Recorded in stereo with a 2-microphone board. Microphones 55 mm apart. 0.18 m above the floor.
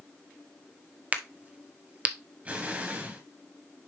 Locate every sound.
1.1 s a crack: 25° right (ahead or behind), 0.9 m
2.5 s an explosion: 30° right (ahead or behind), 2.5 m